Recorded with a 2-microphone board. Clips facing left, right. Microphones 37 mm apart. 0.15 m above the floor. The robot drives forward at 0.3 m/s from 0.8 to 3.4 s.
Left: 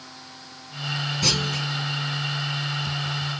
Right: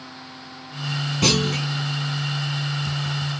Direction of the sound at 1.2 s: 60° right (ahead or behind).